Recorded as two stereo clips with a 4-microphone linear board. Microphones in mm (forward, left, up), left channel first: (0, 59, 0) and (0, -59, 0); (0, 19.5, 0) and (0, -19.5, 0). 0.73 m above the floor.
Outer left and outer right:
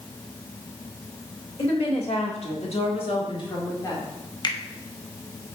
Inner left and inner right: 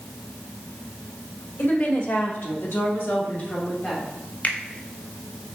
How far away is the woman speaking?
About 2 m.